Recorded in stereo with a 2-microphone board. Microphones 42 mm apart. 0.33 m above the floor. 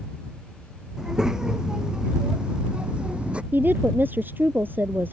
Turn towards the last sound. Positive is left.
turn(degrees=-50)  # may be behind; listen again after turning